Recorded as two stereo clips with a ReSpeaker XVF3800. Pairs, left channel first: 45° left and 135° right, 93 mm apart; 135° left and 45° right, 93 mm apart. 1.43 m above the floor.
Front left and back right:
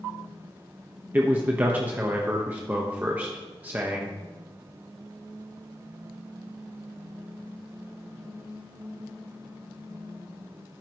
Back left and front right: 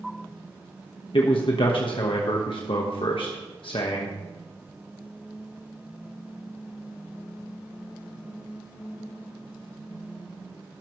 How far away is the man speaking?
About 1.3 m.